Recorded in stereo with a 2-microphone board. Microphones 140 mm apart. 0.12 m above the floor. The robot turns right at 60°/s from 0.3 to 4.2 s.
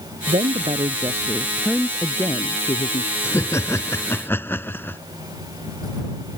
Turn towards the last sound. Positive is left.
turn(degrees=15)  # may be behind; listen again after turning